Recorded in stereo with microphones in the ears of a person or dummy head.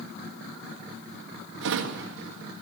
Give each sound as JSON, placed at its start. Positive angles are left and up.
{"t": 1.6, "sound": "a drawer", "side_deg": -65, "distance_m": 1.6}